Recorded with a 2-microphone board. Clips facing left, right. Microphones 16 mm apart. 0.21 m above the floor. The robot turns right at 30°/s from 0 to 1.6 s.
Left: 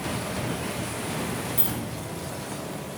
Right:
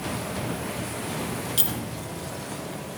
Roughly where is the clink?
Right.